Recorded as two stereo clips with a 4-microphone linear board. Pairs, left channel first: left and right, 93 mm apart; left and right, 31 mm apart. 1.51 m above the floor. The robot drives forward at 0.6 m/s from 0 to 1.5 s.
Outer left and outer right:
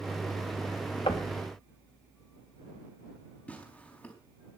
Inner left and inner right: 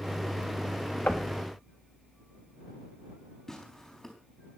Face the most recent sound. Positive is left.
turn(degrees=15)  # may be behind; listen again after turning